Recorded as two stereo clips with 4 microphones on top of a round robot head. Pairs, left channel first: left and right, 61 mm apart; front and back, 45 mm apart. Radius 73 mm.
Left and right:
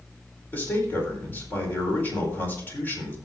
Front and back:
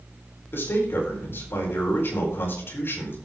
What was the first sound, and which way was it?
A man speaking, 30° left.